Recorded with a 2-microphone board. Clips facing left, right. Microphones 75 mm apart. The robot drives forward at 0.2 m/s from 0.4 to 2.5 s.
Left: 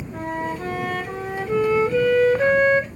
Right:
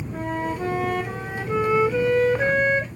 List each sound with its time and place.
0.1 s a flute: 10° right (ahead or behind), 1.5 m; by 2.9 s 5° right (ahead or behind), 1.8 m